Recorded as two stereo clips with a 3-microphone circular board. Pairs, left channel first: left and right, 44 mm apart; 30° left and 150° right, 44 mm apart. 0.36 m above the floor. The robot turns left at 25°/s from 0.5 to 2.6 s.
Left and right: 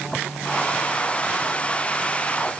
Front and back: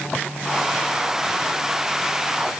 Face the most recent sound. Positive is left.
No sound to turn to.